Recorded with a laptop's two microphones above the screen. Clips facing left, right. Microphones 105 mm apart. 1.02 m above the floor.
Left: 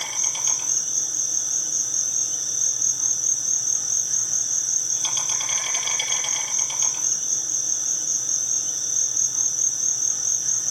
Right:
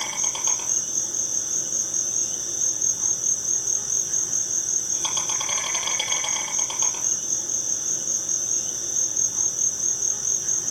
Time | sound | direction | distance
0.0 | an insect | 45° right (ahead or behind) | 4.5 m